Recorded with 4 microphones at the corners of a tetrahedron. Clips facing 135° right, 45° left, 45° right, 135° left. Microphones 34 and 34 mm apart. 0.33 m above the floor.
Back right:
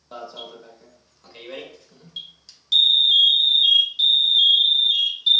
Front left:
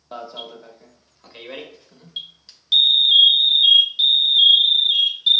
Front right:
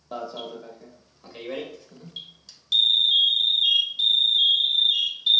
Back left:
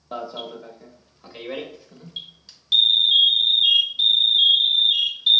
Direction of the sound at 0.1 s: 90° left.